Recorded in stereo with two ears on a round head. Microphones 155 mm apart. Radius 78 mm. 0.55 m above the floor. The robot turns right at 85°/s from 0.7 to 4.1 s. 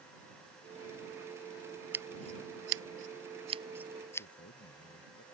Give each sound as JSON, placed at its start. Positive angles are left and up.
{"t": 1.9, "sound": "scissors", "side_deg": -10}
{"t": 4.2, "sound": "a man speaking", "side_deg": 80}